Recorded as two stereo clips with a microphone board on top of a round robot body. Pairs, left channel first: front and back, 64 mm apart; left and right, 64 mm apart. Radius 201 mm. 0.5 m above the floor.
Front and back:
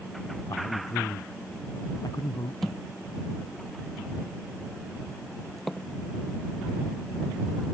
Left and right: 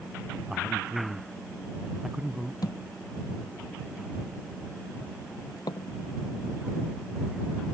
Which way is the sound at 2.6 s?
90° left.